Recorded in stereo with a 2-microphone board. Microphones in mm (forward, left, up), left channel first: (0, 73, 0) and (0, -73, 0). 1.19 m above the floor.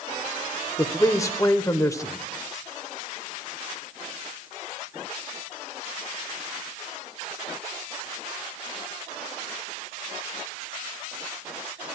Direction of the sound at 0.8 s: 20° left (ahead or behind).